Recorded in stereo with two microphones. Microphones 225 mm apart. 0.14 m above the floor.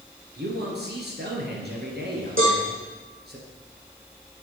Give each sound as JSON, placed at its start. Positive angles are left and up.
{"t": 0.4, "sound": "a man speaking", "side_deg": -55, "distance_m": 3.0}
{"t": 2.4, "sound": "a cowbell", "side_deg": -75, "distance_m": 4.0}